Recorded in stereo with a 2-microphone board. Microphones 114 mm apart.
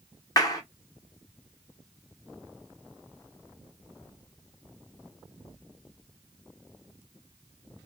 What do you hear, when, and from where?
0.4 s a clap: 35° left (ahead or behind), 1.0 m